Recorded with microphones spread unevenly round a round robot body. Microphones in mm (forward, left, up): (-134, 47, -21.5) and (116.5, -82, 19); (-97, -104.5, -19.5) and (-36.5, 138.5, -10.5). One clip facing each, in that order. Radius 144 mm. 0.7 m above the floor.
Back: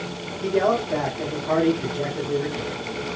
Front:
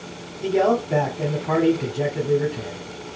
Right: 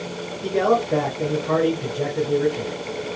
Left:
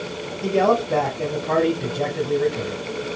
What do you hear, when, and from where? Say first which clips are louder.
0.4 s a man speaking: front 2 dB, left 1 dB; 35° left, 1.8 m